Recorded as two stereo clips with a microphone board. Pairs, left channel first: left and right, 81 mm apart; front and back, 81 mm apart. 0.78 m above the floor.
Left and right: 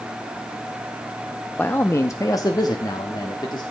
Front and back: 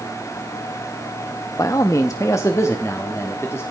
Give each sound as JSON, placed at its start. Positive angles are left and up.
{"t": 1.6, "sound": "a man speaking", "azimuth_deg": 25, "distance_m": 0.5}